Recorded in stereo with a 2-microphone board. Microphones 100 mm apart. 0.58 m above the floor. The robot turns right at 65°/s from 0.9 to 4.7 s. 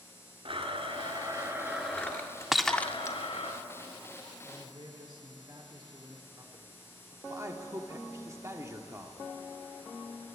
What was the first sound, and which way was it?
A blender, 65° right.